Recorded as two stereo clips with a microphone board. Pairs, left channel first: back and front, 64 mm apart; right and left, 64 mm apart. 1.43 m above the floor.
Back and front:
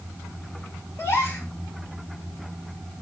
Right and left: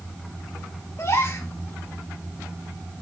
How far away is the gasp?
About 6.5 m.